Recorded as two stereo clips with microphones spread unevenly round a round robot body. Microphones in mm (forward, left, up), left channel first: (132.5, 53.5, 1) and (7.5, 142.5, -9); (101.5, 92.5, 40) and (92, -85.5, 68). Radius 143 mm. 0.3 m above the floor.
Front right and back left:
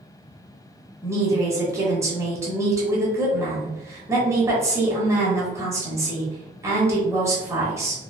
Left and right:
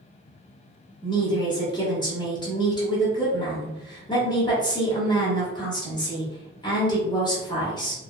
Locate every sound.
1.0 s a woman speaking: 100° left, 1.0 m